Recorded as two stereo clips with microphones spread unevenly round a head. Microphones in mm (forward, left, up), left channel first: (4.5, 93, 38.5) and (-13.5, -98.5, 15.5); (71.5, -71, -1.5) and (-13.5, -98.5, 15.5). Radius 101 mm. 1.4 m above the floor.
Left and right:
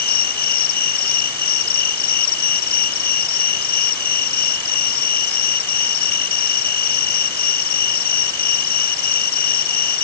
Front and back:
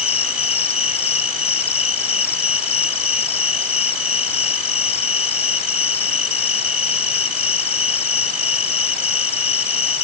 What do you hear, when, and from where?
0.0 s an insect: 40° left